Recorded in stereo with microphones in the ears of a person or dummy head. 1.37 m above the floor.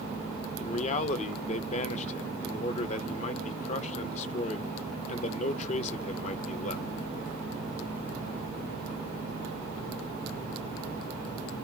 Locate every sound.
0.6 s a man speaking: 40° left (ahead or behind), 0.6 m